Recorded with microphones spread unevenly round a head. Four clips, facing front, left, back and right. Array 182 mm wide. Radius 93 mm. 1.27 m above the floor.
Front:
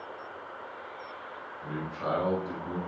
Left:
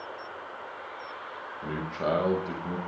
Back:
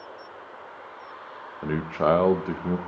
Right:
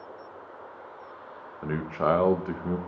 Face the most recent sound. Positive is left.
turn(degrees=-165)